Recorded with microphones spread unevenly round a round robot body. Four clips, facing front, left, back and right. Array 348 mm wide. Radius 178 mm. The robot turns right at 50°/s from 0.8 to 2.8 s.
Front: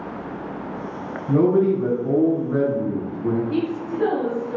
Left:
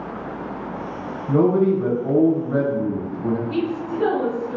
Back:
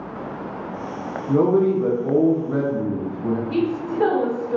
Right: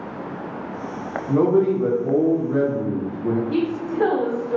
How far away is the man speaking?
About 1.8 m.